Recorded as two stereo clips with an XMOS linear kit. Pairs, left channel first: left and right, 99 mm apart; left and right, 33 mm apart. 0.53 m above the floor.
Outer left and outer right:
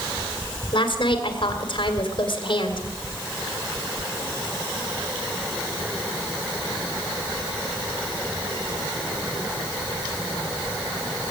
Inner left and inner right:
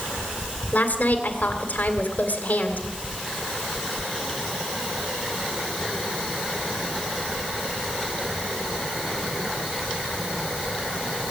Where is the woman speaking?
60° left (ahead or behind), 2 m.